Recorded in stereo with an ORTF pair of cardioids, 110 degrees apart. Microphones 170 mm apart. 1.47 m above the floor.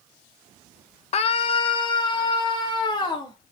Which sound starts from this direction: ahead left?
A scream, at 1.1 s.